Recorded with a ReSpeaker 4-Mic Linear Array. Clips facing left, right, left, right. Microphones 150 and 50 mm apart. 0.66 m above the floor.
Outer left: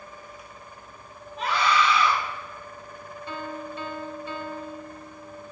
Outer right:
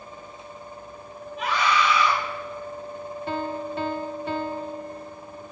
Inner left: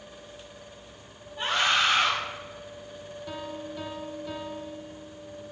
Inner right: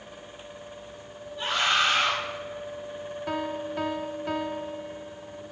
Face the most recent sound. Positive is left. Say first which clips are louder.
# outer right 5 dB, inner right 6 dB
turn(degrees=-60)  # may be behind; listen again after turning